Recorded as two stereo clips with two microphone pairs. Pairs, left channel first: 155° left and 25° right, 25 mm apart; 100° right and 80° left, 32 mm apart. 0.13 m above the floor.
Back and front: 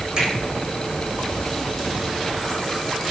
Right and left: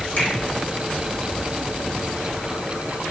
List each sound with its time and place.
0.2 s a finger snap: 80° right, 5.5 m